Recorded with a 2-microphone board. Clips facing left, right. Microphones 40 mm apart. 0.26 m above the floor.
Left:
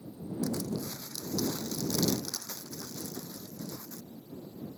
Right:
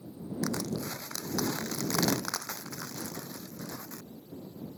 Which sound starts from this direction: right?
Crushing, at 0.4 s.